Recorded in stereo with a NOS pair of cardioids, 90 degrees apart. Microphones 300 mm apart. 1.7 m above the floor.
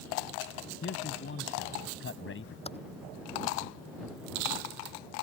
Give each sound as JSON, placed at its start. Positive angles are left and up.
{"t": 0.8, "sound": "a man speaking", "azimuth_deg": 40}
{"t": 2.6, "sound": "typing on a keyboard", "azimuth_deg": 20}